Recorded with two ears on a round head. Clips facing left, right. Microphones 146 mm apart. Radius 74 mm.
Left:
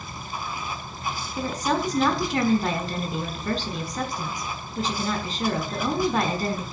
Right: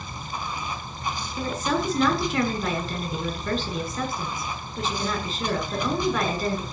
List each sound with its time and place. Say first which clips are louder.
0.0 s running water: right 1 dB; 10° left (ahead or behind), 4 m
1.4 s a woman speaking: left 1 dB; 35° left (ahead or behind), 6 m